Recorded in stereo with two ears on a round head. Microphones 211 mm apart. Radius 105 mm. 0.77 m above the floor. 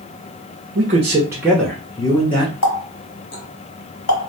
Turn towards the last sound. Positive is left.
turn(degrees=55)  # may be behind; listen again after turning